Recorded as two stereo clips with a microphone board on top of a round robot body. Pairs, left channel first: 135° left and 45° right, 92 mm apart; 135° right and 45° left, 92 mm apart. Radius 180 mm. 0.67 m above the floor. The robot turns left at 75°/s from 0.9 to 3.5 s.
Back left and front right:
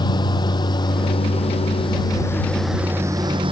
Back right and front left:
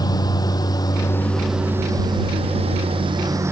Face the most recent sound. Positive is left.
turn(degrees=-15)